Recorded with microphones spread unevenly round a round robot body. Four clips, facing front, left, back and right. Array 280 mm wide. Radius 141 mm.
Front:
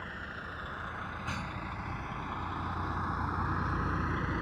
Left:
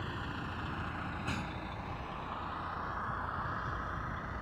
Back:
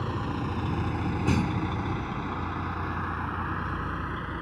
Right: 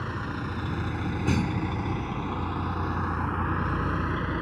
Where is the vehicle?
150° right; by 4.4 s 80° right.